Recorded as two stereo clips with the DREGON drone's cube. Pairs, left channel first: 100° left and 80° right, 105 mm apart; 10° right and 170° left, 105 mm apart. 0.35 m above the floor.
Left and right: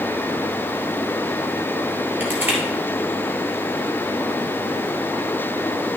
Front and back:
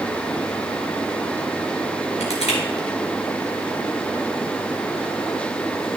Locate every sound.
2.2 s crushing: 5° right, 3 m